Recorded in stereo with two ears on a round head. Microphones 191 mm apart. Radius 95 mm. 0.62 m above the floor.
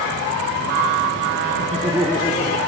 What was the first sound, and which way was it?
Laughter, 40° right (ahead or behind).